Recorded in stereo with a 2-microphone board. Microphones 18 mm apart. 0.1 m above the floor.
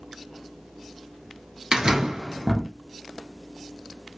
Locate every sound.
1.7 s a door slam: 40° right (ahead or behind), 1.0 m